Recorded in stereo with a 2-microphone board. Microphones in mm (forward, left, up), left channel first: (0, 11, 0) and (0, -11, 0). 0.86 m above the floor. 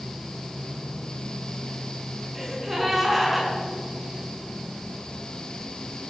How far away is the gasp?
About 7 m.